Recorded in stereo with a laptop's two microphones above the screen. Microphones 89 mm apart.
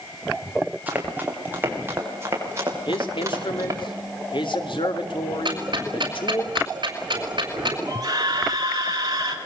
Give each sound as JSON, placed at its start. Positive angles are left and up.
{"t": 0.9, "sound": "running footsteps", "side_deg": -20, "distance_m": 7.5}
{"t": 2.9, "sound": "a man speaking", "side_deg": 65, "distance_m": 2.5}
{"t": 5.5, "sound": "ticking", "side_deg": -60, "distance_m": 5.5}
{"t": 7.9, "sound": "a scream", "side_deg": -45, "distance_m": 6.5}